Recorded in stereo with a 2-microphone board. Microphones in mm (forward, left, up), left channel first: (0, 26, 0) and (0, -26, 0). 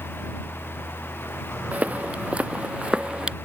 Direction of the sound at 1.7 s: 30° right (ahead or behind).